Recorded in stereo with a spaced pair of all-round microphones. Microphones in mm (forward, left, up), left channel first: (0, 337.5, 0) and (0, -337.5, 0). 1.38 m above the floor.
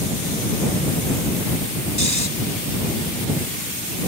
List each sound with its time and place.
2.0 s snoring: 25° right (ahead or behind)